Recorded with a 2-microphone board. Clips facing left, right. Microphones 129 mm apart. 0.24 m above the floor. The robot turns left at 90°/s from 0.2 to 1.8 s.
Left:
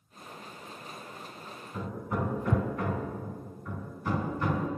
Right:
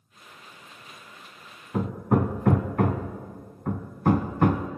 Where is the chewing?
No chewing in this recording.